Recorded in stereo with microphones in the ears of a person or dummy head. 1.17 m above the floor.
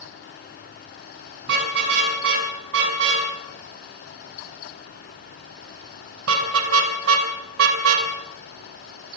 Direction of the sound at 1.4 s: 65° right (ahead or behind).